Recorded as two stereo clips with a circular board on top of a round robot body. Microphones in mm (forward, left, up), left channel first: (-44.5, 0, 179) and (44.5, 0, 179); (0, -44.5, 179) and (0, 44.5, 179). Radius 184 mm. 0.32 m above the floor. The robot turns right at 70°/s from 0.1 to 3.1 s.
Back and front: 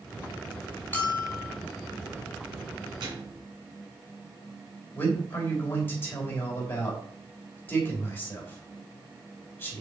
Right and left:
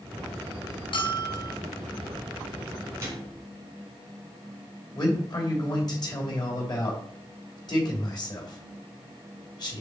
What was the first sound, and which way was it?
A bell, 110° right.